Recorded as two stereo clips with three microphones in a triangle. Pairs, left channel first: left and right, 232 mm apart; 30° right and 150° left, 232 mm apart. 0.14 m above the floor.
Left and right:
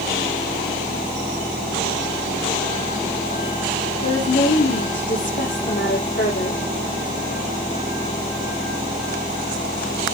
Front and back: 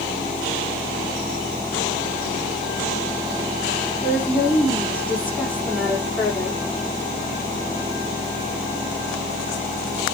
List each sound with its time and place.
4.0 s a woman speaking: 55° left, 7.5 m